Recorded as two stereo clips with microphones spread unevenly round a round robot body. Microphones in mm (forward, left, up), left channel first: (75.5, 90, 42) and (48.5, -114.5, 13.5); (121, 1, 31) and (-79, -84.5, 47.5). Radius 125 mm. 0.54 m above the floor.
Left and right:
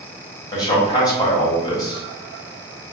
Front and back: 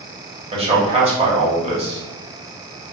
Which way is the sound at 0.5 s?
155° left.